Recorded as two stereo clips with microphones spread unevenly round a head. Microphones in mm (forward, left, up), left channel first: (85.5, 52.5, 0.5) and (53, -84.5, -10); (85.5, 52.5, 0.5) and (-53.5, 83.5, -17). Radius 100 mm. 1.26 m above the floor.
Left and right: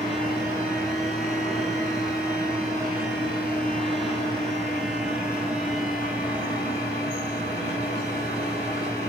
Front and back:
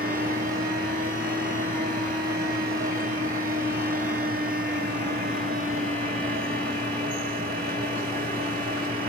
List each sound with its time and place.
0.0 s a fan: 170° left, 2.5 m